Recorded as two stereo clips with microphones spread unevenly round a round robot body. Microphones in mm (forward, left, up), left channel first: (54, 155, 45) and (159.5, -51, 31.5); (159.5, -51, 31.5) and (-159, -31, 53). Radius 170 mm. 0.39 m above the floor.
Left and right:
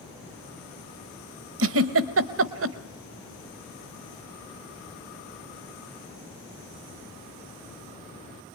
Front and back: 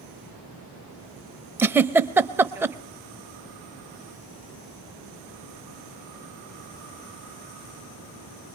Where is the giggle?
100° right, 0.7 m.